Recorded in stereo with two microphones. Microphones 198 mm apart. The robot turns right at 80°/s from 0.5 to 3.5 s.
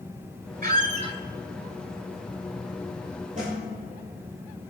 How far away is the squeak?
About 0.6 m.